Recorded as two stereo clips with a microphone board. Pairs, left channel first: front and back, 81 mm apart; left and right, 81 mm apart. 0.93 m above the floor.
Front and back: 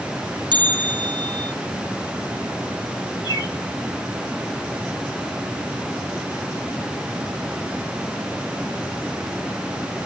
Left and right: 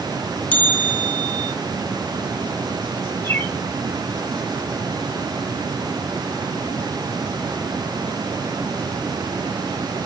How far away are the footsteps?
No footsteps in this recording.